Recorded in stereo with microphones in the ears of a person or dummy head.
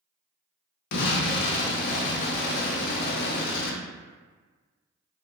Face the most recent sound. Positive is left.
turn(degrees=50)  # may be behind; listen again after turning